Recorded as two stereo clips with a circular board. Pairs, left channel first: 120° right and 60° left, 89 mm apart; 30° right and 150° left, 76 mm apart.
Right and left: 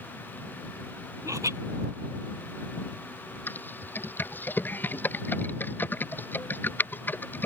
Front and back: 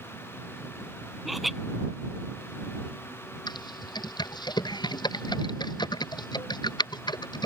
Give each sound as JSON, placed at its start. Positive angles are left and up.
{"t": 1.2, "sound": "laughter", "azimuth_deg": 60}
{"t": 3.5, "sound": "typing on a keyboard", "azimuth_deg": -50}